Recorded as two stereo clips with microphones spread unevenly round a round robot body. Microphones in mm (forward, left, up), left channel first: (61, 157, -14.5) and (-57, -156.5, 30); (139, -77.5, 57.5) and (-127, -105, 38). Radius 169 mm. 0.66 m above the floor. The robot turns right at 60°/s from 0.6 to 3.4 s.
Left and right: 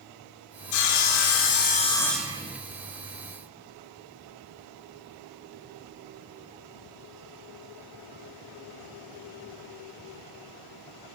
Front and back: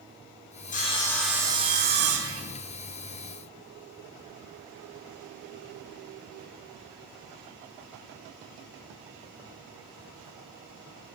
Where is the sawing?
65° left, 0.7 m; by 2.4 s 170° left, 0.7 m.